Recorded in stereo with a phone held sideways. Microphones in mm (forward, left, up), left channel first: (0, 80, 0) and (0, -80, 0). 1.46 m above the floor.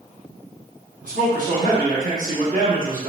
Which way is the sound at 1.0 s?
55° right (ahead or behind).